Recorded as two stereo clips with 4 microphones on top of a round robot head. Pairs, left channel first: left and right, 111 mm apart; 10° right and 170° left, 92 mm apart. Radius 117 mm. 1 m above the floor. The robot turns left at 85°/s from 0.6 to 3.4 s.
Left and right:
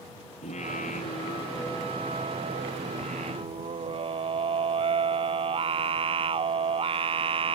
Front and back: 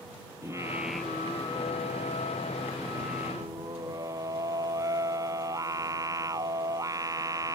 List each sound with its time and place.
0.4 s singing: 110° left; by 7.5 s 130° right